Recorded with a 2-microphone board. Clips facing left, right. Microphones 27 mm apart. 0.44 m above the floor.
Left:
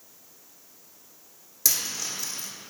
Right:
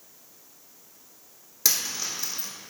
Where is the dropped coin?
25° right (ahead or behind), 1.8 m.